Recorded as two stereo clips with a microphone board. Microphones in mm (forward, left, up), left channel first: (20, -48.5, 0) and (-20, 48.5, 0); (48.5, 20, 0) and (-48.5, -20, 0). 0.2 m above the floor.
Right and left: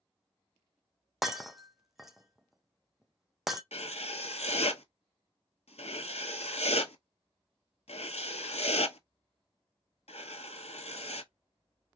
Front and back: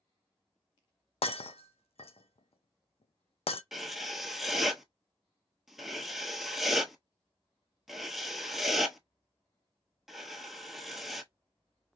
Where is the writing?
70° right, 0.7 m.